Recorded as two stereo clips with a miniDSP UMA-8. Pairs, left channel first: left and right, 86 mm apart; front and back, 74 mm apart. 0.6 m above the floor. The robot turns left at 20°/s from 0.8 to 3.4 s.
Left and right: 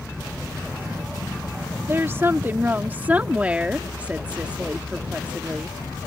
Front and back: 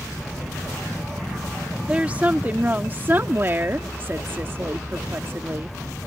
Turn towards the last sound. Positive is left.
turn(degrees=-150)